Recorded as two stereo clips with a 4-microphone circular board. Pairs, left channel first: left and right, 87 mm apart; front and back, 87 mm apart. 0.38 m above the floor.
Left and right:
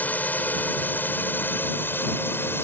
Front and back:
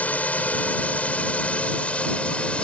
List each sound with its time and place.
0.0 s a drone: 50° left; by 2.6 s 65° left